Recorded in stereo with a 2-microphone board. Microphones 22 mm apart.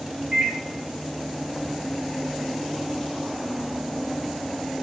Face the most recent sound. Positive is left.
turn(degrees=-20)  # may be behind; listen again after turning